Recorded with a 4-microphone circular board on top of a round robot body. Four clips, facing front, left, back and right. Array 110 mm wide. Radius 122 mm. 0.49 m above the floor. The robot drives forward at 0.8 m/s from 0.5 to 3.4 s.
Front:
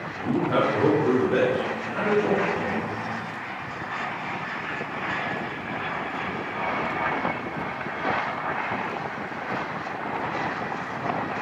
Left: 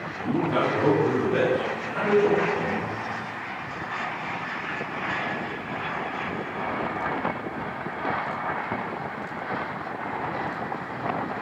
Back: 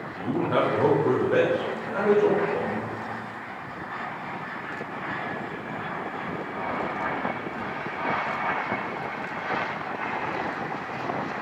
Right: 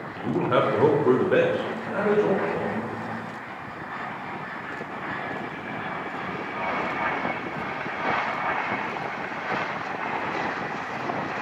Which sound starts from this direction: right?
A man speaking, at 0.2 s.